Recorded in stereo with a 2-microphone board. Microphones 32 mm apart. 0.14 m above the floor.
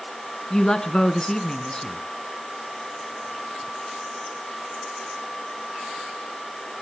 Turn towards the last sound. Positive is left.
turn(degrees=20)  # may be behind; listen again after turning